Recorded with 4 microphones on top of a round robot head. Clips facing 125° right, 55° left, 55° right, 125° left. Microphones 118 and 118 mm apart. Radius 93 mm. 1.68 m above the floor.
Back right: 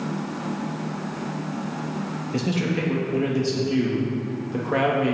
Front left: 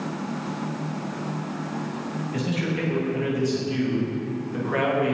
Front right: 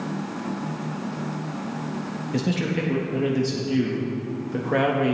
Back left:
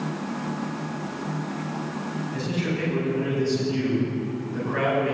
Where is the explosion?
I don't hear an explosion.